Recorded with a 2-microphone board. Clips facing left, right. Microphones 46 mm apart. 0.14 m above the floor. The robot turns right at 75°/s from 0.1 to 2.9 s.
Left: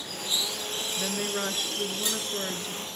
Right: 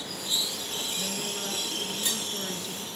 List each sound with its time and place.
1.0 s a woman speaking: 40° left, 2 m; by 2.9 s straight behind, 2 m